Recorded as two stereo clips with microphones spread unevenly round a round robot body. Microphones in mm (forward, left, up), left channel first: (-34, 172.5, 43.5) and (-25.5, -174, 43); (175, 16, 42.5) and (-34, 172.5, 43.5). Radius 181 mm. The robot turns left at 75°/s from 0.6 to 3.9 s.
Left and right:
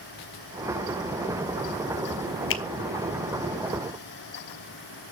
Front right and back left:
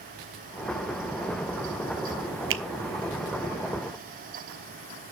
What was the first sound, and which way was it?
A finger snap, 135° left.